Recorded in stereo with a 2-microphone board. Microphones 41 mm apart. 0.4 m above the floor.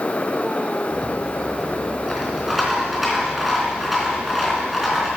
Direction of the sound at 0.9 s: 5° right (ahead or behind).